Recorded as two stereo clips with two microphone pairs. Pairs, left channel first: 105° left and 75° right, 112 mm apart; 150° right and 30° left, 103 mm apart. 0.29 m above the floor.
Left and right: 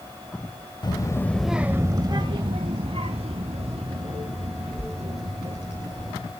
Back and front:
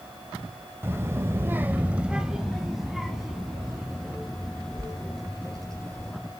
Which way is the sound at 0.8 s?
90° left.